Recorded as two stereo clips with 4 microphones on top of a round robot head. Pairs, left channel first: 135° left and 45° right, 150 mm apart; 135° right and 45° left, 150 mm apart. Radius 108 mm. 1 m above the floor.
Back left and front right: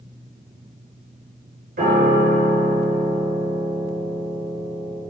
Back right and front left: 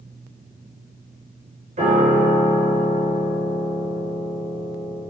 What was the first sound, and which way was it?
A piano, 5° right.